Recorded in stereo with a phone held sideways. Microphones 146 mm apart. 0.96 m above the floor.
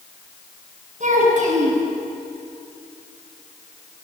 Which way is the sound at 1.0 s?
55° right (ahead or behind).